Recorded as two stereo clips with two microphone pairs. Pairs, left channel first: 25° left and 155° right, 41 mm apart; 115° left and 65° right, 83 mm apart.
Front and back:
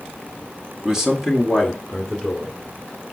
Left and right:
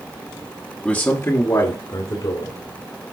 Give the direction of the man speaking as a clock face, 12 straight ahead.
7 o'clock.